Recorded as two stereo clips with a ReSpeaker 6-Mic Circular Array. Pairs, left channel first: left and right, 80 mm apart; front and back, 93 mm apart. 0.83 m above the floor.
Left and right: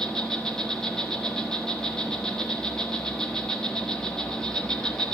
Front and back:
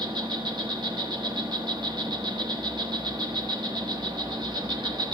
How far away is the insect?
About 1.0 m.